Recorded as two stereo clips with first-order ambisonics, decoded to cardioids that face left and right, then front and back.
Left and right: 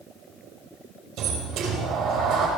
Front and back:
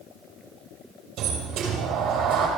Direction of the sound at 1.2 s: 130° right.